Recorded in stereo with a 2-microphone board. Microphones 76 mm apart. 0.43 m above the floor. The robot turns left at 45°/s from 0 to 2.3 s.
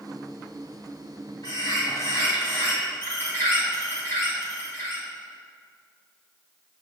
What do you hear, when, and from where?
1.4 s a bird: 70° left, 3 m; by 5.1 s 30° left, 3 m